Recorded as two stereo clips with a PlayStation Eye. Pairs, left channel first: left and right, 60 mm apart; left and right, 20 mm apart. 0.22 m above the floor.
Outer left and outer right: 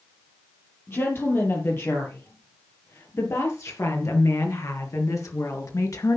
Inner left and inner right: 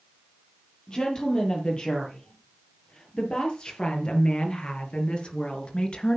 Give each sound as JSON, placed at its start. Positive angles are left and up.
{"t": 0.9, "sound": "a woman speaking", "side_deg": 40, "distance_m": 7.0}